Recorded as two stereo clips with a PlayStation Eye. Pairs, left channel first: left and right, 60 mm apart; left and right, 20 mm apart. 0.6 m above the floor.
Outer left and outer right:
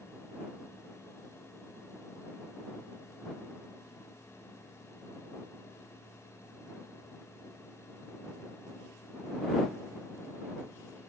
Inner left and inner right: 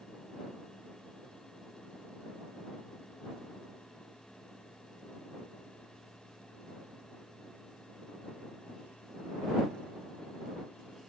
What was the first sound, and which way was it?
Only background noise.